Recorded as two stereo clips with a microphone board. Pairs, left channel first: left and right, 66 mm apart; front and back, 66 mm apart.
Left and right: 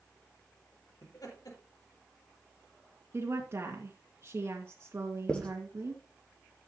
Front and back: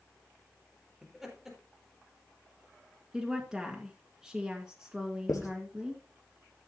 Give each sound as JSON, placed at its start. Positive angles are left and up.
{"t": 1.0, "sound": "laughter", "azimuth_deg": 95, "distance_m": 4.5}
{"t": 3.1, "sound": "a woman speaking", "azimuth_deg": -105, "distance_m": 2.0}
{"t": 5.3, "sound": "writing", "azimuth_deg": 15, "distance_m": 2.5}